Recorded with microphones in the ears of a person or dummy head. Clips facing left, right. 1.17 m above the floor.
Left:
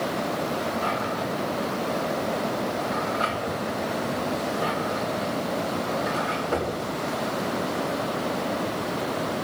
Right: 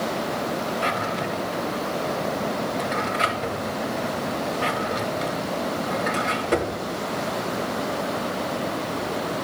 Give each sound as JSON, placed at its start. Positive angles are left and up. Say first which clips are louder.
{"t": 0.8, "sound": "a drawer", "louder": "right 1 dB", "side_deg": -40, "distance_m": 1.7}